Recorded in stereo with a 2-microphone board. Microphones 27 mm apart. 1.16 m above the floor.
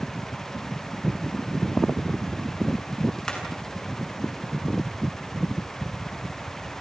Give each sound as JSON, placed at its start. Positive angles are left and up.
{"t": 3.3, "sound": "hammering", "side_deg": 25, "distance_m": 7.5}